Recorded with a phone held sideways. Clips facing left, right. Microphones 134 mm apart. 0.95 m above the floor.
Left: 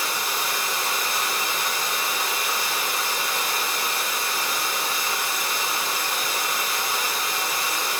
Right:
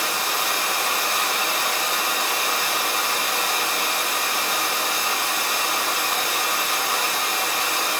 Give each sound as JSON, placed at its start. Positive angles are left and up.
{"t": 0.0, "sound": "running water", "side_deg": -70, "distance_m": 1.1}